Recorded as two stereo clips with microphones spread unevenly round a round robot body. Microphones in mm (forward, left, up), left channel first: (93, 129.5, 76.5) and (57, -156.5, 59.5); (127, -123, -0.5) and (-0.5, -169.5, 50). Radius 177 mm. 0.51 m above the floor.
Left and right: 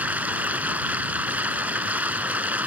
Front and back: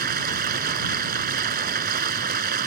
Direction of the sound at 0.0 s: 175° left.